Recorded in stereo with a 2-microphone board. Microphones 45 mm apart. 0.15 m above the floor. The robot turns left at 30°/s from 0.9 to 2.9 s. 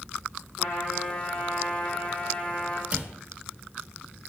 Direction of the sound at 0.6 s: 80° left.